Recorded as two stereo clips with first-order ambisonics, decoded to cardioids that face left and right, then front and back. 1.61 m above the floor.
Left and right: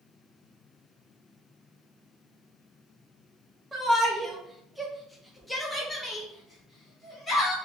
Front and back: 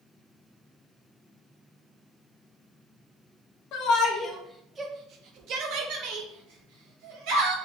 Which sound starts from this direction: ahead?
A shout, at 3.7 s.